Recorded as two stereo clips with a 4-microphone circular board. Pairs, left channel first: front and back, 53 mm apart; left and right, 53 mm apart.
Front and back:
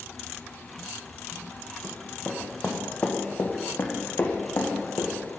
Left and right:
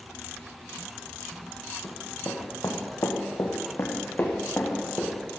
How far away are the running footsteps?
About 1.9 m.